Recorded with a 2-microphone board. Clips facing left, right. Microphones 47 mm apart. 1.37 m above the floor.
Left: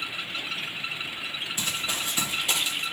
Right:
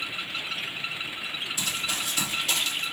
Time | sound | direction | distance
1.6 | running footsteps | 35° left (ahead or behind) | 1.9 m